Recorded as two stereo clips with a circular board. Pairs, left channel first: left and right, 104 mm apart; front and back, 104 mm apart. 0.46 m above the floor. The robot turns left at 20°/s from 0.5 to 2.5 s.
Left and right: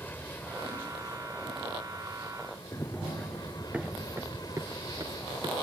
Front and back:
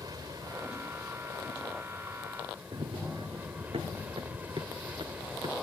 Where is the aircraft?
155° left; by 5.6 s 115° left.